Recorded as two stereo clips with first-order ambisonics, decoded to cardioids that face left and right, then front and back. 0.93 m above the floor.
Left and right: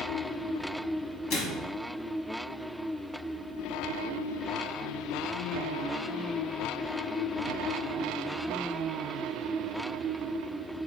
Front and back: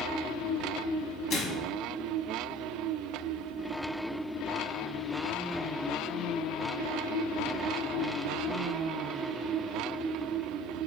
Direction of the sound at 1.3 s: 55° left.